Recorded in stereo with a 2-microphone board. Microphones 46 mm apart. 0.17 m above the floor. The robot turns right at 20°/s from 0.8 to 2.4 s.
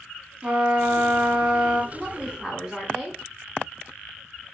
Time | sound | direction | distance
0.4 | a trumpet | 30° right (ahead or behind) | 0.7 m
1.9 | a woman speaking | 20° right (ahead or behind) | 1.0 m